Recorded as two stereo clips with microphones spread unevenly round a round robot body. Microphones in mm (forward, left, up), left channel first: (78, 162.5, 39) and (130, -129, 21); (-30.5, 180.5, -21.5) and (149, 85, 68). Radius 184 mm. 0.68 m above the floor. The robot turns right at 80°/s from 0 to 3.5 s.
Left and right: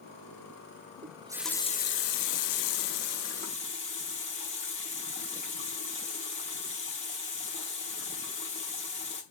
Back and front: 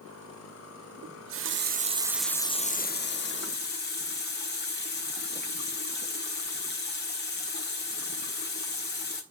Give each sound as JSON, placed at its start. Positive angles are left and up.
{"t": 1.0, "sound": "a running tap", "azimuth_deg": -25, "distance_m": 0.9}